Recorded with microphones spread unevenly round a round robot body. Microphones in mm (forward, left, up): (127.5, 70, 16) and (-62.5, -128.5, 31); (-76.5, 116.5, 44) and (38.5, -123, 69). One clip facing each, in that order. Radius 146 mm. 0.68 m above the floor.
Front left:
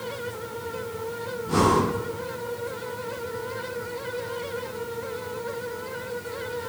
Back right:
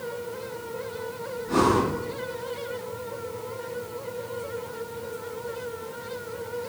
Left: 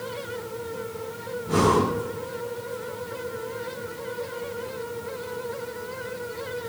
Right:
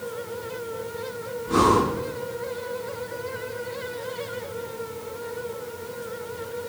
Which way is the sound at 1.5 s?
95° left.